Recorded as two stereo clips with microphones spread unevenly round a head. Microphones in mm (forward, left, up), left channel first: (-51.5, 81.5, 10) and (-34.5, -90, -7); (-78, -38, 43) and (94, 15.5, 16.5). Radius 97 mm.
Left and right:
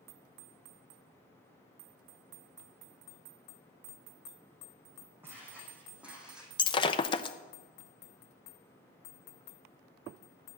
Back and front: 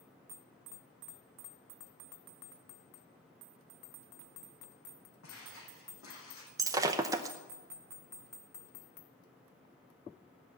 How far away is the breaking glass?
About 0.6 m.